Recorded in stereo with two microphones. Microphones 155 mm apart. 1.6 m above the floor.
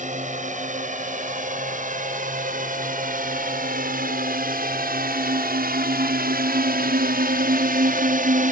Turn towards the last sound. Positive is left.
turn(degrees=-60)  # may be behind; listen again after turning